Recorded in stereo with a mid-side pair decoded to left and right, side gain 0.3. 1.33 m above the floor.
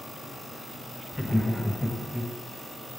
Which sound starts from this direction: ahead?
Laughter, at 1.1 s.